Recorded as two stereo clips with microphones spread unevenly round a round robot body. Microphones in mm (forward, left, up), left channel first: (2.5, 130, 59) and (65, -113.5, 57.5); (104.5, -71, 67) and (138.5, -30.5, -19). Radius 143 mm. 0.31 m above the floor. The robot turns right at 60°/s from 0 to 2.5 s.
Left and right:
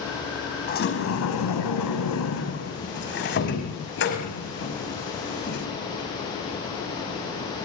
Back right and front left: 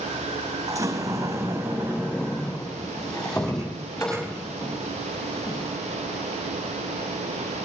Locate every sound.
0.7 s a sliding door: 45° left, 5 m; by 5.7 s 155° left, 5 m